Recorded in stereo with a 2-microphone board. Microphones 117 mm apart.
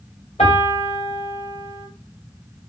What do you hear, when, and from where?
0.4 s a piano: 60° left (ahead or behind), 2 m